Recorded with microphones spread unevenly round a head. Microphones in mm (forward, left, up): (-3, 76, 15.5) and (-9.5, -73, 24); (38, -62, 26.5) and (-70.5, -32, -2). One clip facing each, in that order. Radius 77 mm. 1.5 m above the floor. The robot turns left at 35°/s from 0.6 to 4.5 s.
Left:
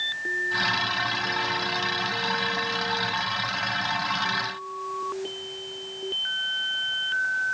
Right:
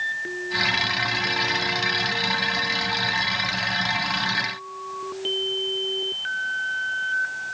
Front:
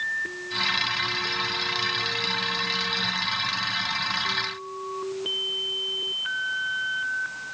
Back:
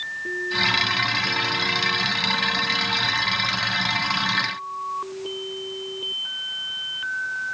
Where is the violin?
No violin in this recording.